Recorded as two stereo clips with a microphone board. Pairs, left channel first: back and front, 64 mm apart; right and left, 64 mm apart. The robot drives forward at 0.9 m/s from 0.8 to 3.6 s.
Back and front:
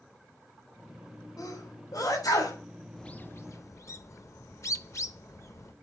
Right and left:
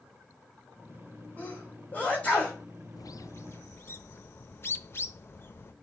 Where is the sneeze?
155° right, 5 m; by 2.6 s 160° right, 6 m.